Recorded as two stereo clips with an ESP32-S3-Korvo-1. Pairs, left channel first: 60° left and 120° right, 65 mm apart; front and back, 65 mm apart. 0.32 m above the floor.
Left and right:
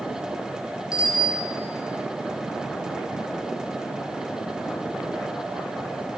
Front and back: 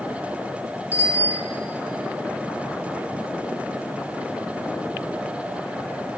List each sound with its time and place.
0.9 s a bicycle bell: 50° left, 2 m